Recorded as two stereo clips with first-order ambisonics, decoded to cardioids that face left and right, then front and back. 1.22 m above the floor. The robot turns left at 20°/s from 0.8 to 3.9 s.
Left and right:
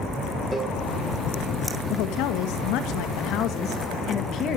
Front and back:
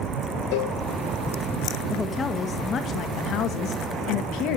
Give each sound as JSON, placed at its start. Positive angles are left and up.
{"t": 0.5, "sound": "a cowbell", "azimuth_deg": 0, "distance_m": 3.5}
{"t": 1.9, "sound": "a woman speaking", "azimuth_deg": 80, "distance_m": 1.9}